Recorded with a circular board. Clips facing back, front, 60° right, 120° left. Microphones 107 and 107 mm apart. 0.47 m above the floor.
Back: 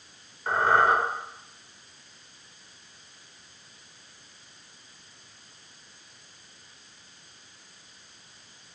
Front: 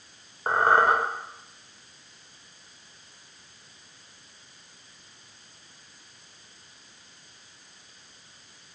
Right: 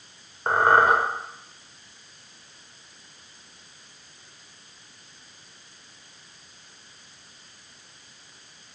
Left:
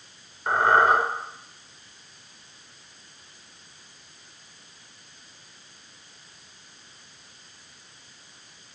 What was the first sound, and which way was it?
A squeak, 25° right.